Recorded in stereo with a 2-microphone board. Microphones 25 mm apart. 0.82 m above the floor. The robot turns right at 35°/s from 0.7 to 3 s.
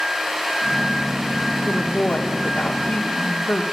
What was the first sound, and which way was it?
A woman speaking, 55° left.